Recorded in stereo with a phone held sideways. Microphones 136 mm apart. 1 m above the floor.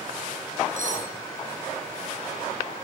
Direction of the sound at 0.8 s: 65° right (ahead or behind).